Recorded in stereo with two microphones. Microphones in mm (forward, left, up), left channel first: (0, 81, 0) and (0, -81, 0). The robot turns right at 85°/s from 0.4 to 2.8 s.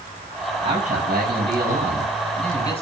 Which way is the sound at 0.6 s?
150° right.